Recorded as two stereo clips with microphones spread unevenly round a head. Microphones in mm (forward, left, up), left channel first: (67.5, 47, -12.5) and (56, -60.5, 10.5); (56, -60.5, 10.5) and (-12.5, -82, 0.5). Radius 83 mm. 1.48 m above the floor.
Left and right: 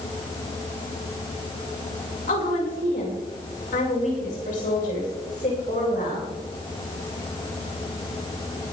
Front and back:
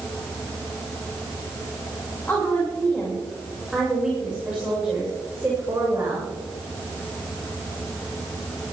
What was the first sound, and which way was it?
A woman speaking, 95° left.